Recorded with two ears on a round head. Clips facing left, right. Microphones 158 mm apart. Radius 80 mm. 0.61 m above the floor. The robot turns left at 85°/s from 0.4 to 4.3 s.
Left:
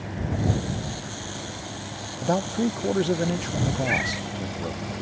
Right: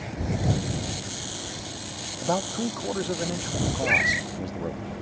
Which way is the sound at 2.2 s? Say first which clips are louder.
Left 3 dB; 10° left (ahead or behind).